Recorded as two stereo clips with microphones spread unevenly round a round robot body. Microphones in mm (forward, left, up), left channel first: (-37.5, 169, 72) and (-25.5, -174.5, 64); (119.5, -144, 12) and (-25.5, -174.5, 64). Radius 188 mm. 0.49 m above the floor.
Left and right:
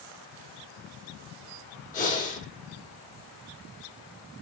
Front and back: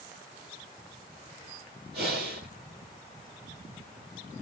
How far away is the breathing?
About 4.5 m.